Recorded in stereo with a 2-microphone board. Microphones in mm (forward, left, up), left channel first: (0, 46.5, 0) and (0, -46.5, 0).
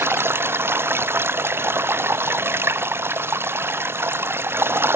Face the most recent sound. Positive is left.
turn(degrees=-25)  # may be behind; listen again after turning